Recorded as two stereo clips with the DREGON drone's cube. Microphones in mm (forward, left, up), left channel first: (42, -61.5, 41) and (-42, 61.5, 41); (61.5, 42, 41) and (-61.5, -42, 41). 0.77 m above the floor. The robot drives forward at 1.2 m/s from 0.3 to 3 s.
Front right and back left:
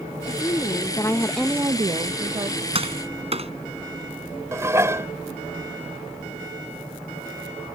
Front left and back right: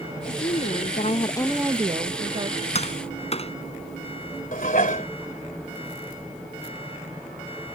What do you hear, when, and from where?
0.2 s a woman speaking: 5° left; by 2.6 s 175° left
2.8 s tapping: 75° left; by 3.5 s 80° left
4.5 s dishes clattering: 55° left